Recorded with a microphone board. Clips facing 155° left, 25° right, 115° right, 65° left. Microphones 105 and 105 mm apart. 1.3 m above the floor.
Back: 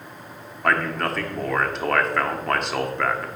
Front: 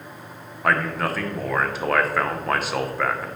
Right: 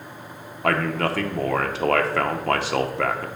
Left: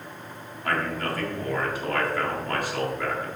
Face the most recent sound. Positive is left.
turn(degrees=-110)